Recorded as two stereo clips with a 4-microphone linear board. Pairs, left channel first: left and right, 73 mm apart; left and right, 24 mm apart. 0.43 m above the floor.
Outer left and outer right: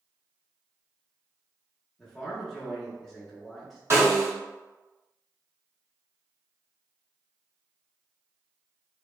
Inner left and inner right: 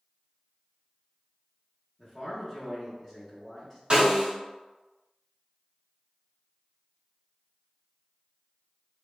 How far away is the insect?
No insect in this recording.